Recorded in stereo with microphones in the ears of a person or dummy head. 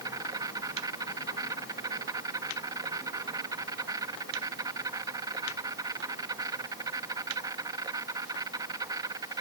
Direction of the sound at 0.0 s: 20° right (ahead or behind).